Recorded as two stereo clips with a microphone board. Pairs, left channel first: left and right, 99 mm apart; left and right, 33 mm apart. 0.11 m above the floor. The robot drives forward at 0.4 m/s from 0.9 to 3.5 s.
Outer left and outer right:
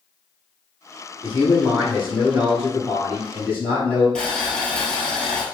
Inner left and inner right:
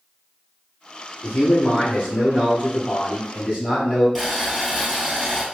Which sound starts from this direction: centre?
Boiling, at 4.2 s.